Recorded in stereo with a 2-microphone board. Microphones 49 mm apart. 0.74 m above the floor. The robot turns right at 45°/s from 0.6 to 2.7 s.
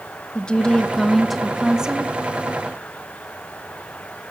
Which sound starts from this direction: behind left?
A woman speaking, at 0.3 s.